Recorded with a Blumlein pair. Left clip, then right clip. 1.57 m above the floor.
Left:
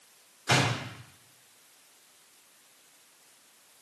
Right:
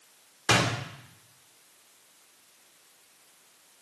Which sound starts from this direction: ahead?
A door slam, at 0.5 s.